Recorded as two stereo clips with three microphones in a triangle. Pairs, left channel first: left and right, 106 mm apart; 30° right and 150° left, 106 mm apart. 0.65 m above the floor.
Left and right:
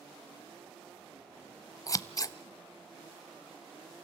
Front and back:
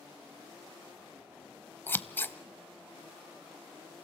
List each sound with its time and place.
1.9 s scissors: 35° left, 0.7 m